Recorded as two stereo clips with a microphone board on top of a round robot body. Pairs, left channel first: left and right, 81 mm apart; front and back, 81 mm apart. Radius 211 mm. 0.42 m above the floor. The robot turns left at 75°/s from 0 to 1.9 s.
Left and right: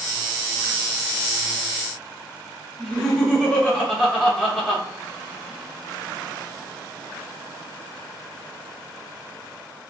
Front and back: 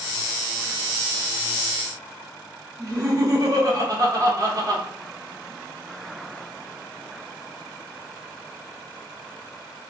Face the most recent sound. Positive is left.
turn(degrees=165)